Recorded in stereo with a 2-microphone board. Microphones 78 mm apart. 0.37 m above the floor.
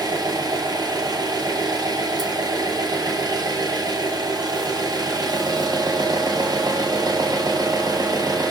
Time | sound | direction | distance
0.0 | an engine running | 55° right (ahead or behind) | 2 m